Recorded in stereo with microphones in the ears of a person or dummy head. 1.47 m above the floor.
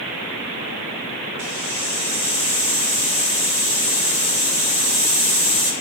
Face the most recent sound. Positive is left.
turn(degrees=50)  # may be behind; listen again after turning